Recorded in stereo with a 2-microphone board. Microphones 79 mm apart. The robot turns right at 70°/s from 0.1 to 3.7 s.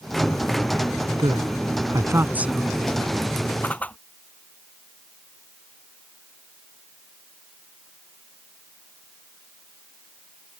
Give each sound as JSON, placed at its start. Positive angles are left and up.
{"t": 1.2, "sound": "a woman speaking", "side_deg": -80}
{"t": 3.6, "sound": "a whoosh", "side_deg": 20}